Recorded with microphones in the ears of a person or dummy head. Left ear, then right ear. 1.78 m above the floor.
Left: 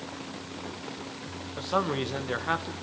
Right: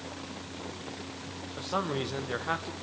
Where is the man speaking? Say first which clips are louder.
Left 4 dB; 10° left (ahead or behind), 1.2 m.